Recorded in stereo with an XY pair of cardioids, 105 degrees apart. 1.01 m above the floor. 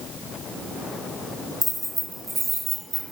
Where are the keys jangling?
5° left, 0.6 m; by 3.1 s 60° right, 0.9 m.